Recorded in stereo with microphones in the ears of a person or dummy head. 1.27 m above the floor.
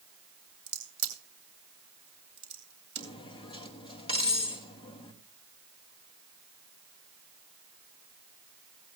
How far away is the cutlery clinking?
About 1.6 m.